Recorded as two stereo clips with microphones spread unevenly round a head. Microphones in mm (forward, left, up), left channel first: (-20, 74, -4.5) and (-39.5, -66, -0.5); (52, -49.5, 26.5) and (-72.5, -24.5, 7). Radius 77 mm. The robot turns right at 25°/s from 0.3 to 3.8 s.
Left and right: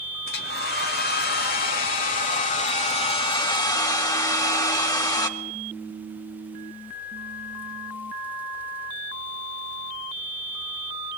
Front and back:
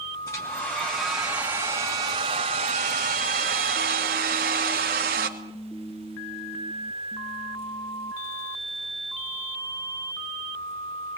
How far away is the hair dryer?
About 2.5 m.